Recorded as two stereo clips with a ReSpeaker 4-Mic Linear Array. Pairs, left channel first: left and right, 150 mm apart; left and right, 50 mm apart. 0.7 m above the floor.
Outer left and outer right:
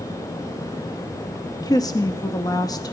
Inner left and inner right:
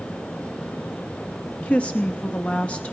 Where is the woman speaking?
25° left (ahead or behind), 0.6 m.